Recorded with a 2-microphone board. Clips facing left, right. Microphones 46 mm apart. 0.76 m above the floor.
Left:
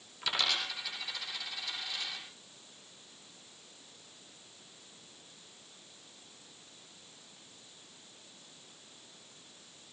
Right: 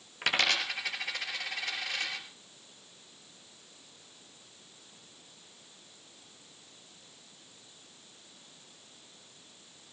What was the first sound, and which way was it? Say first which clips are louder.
A dropped coin: right 5 dB; 55° right (ahead or behind).